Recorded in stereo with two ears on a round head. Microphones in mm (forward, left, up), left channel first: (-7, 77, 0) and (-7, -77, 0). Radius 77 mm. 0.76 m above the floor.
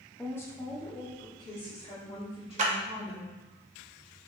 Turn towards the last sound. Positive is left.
turn(degrees=-40)  # may be behind; listen again after turning